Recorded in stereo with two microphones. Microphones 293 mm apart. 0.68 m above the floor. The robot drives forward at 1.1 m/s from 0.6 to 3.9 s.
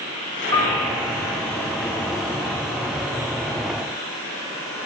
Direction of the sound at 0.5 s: 15° left (ahead or behind).